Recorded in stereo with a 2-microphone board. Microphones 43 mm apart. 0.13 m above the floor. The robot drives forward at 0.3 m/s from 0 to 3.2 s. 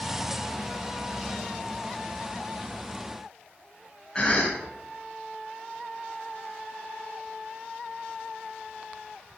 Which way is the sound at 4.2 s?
20° left (ahead or behind).